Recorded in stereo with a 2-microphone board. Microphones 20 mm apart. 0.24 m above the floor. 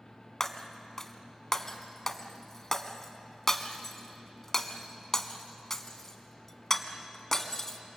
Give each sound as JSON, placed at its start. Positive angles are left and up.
{"t": 0.4, "sound": "breaking glass", "side_deg": 20, "distance_m": 1.3}